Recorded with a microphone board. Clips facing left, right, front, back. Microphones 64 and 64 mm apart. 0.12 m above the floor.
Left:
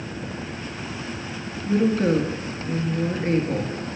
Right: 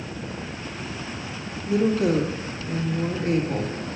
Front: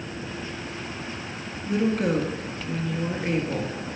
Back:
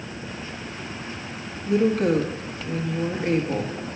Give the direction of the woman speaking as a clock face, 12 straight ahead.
9 o'clock.